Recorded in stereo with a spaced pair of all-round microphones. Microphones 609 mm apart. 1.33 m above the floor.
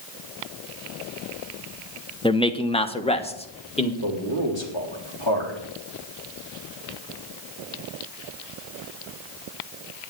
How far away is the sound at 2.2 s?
About 0.8 m.